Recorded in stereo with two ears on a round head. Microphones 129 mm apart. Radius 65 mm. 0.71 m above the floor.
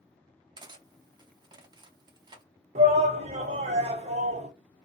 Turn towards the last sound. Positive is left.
turn(degrees=-50)  # may be behind; listen again after turning